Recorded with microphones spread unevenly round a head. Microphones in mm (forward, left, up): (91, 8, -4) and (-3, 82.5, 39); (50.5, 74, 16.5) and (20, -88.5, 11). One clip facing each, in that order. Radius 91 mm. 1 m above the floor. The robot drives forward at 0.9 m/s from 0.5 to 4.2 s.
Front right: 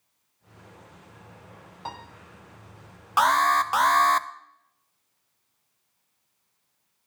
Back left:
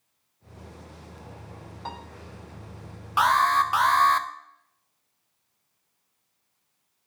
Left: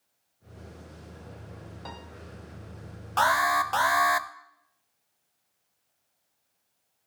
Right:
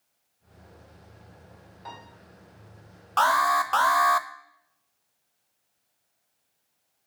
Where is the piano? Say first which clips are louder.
Even, right 1 dB; 45° left, 2.5 m; by 2.0 s 50° left, 2.5 m.